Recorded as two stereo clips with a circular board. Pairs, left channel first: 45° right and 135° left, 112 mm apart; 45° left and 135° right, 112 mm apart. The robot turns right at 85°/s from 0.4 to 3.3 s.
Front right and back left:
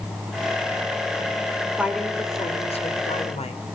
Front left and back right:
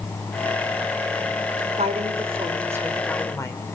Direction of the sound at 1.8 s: 150° right.